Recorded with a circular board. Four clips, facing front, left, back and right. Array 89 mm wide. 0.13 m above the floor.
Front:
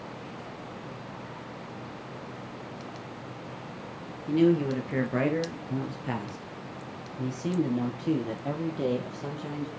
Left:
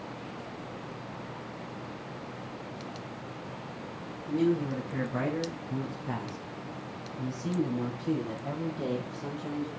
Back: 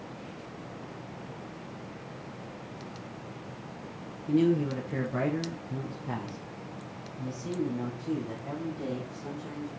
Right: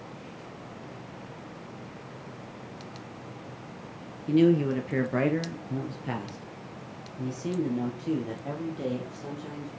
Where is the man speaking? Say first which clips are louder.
Right 6 dB, front 2 dB; 65° right, 2.5 m; by 9.7 s straight ahead, 3 m.